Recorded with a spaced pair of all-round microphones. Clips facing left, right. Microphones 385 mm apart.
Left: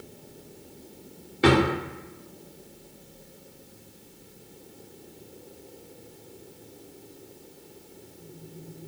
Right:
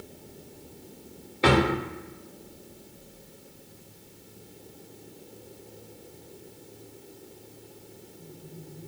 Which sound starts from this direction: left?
A drawer, at 1.4 s.